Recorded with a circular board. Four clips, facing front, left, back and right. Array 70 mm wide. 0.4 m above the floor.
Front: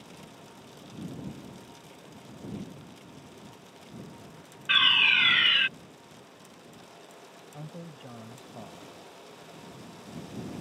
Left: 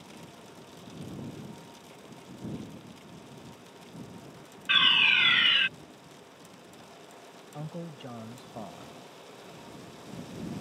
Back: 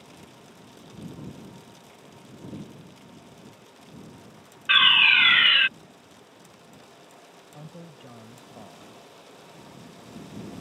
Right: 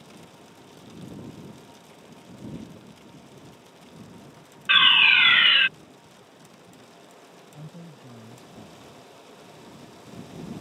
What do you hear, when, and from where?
4.7 s a fire alarm: 125° right
7.5 s a man speaking: 90° left